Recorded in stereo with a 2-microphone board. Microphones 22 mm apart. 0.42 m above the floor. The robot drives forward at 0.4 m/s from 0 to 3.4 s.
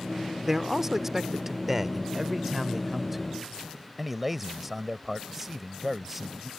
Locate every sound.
0.5 s a man speaking: 20° right (ahead or behind); by 6.5 s 10° right (ahead or behind)